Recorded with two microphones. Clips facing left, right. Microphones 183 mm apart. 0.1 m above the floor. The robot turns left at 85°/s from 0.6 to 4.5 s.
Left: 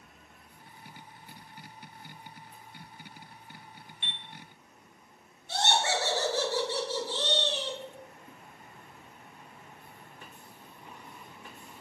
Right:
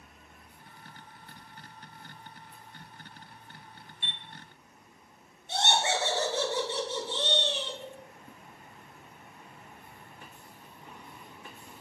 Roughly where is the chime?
Right.